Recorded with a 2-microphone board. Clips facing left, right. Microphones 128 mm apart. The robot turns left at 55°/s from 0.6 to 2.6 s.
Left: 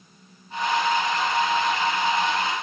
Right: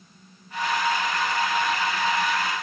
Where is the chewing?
I don't hear chewing.